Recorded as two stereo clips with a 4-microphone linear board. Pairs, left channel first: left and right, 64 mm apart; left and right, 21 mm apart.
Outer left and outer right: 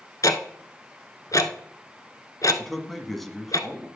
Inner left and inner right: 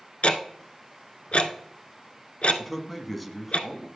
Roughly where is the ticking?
Left.